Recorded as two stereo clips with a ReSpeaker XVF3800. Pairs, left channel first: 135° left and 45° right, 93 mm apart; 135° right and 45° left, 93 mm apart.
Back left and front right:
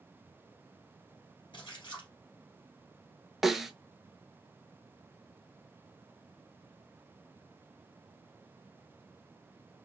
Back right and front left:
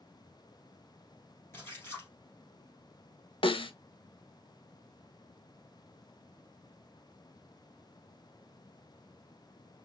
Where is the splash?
165° left, 2.5 m.